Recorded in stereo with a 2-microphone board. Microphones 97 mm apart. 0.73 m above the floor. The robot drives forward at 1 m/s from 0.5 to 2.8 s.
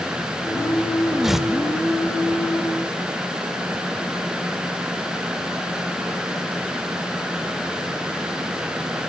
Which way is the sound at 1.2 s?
5° right (ahead or behind).